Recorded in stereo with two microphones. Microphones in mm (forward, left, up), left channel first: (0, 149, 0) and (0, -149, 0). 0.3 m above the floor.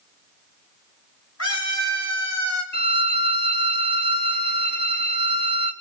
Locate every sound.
1.4 s a scream: 60° left (ahead or behind), 5.5 m
2.7 s a violin: 35° left (ahead or behind), 0.9 m